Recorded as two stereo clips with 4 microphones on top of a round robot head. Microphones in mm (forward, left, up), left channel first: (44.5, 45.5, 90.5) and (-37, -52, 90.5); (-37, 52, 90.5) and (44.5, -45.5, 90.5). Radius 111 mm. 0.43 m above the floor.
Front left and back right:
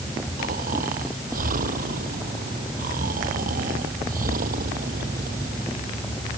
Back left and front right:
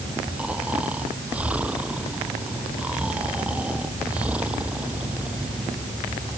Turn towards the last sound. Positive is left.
turn(degrees=-130)